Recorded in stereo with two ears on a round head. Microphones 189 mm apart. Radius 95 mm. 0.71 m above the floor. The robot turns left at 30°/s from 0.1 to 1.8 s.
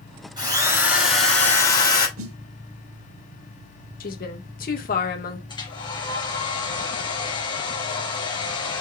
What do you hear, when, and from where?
0.4 s a drill: 160° right, 4.5 m; by 2.1 s 160° left, 4.5 m
2.2 s a snare drum: 65° right (ahead or behind), 1.2 m
4.0 s a woman speaking: 45° left (ahead or behind), 2 m
5.5 s a hair dryer: 25° left (ahead or behind), 3 m